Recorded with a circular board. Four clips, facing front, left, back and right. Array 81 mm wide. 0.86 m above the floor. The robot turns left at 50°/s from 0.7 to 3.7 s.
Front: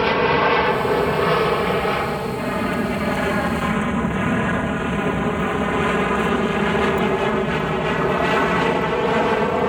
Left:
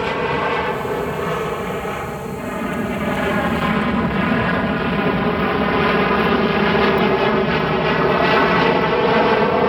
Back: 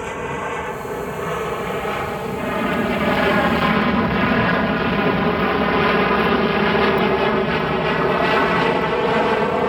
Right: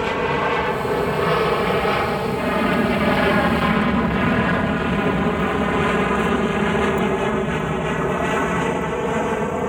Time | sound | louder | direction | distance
0.0 | an aircraft | left 1 dB, front 8 dB | 5° left | ?